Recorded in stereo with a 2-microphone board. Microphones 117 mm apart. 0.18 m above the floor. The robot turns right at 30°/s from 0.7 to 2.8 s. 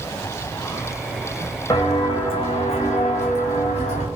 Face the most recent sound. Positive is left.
turn(degrees=80)